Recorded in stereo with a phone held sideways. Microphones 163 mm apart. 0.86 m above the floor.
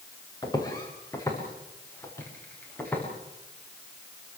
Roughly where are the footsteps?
Left.